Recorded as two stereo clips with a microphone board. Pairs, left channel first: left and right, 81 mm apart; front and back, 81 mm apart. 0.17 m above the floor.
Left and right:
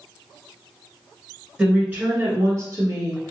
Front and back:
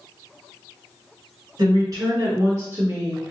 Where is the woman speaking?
165° right, 1.9 m; by 3.3 s 110° right, 1.6 m.